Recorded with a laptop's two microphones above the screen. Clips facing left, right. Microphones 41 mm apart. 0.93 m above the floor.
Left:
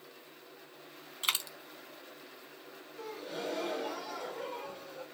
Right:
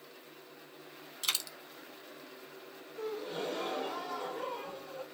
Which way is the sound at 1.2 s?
25° left (ahead or behind).